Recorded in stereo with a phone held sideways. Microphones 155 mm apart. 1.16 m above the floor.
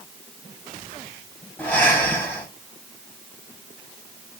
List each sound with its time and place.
1.6 s breathing: 15° left (ahead or behind), 4.5 m